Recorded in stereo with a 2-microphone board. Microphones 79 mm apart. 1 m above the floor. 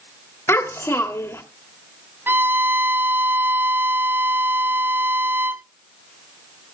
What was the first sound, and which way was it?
A child speaking, 30° left (ahead or behind).